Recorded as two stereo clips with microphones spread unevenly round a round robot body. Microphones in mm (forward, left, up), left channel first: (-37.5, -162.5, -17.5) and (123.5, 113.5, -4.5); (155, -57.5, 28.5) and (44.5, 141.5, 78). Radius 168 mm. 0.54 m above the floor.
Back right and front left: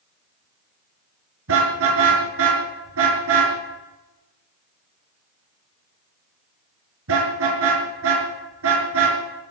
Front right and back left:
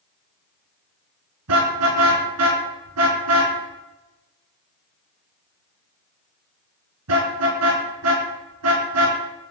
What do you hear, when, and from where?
1.5 s a car horn: 115° left, 5 m